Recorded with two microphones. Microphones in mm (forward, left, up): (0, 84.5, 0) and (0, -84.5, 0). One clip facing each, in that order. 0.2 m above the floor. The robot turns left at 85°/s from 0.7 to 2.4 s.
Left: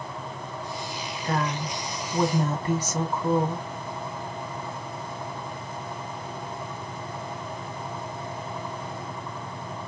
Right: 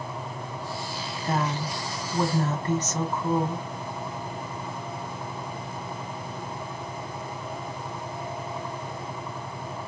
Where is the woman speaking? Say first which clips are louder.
Even; 25° right (ahead or behind), 1.1 m; by 3.7 s 10° left (ahead or behind), 1.1 m.